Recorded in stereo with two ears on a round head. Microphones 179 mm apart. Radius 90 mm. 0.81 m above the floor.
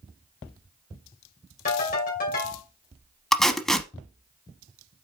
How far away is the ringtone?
About 2.5 m.